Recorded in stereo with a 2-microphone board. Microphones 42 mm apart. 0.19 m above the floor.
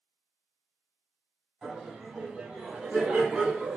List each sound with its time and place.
1.6 s laughter: 15° right (ahead or behind), 1.5 m; by 3.8 s 35° right (ahead or behind), 1.8 m